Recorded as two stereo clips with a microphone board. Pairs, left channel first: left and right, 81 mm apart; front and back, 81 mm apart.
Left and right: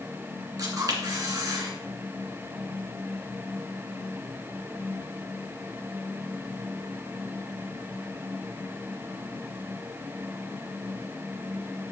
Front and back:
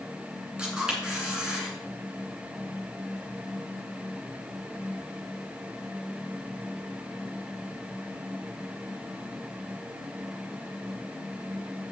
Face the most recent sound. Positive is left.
turn(degrees=-105)